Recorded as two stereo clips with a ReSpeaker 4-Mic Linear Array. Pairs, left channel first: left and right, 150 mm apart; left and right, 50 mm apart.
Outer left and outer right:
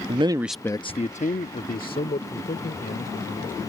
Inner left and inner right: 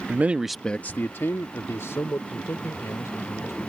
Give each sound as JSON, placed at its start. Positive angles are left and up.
{"t": 0.1, "sound": "a man speaking", "side_deg": -40}